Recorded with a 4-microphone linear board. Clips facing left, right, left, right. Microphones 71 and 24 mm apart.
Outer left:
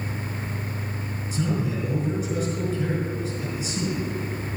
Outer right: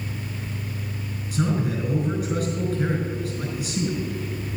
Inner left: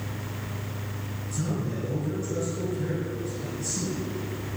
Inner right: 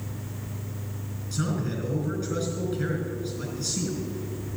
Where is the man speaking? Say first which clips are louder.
Outer right 2 dB, inner right 2 dB; 55° right (ahead or behind), 4.5 m.